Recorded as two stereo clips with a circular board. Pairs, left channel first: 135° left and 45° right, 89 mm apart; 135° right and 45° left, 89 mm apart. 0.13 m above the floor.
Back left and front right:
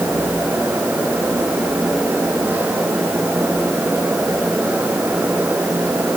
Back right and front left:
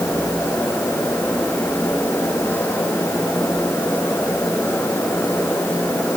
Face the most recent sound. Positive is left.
No sound to turn to.